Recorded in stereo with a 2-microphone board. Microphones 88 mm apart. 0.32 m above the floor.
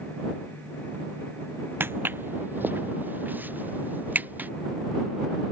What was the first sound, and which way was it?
Footsteps, 25° right (ahead or behind).